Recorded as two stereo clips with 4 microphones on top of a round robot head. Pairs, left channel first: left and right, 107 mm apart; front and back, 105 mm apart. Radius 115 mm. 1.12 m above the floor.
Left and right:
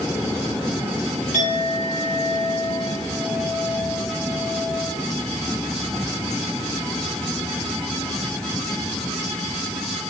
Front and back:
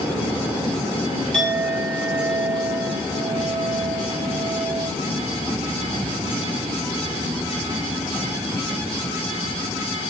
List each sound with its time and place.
1.3 s a clink: 85° left, 6.5 m